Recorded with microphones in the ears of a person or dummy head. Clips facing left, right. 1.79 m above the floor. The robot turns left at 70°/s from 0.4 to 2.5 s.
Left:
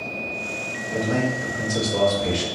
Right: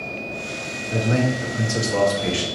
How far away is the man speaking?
About 1.1 m.